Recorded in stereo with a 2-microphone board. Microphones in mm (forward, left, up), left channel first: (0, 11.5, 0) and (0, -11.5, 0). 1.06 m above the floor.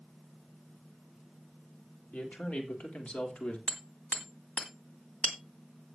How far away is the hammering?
About 1.9 m.